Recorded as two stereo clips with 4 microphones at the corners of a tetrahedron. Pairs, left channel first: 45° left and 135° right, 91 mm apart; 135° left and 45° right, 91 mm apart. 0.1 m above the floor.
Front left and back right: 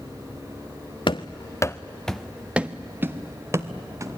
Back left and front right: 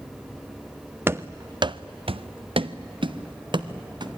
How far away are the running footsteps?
About 0.7 m.